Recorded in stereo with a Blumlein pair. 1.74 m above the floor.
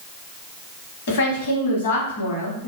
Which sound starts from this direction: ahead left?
A woman speaking, at 1.1 s.